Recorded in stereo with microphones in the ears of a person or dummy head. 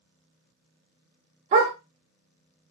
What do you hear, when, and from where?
1.5 s a dog barking: 40° right (ahead or behind), 1.0 m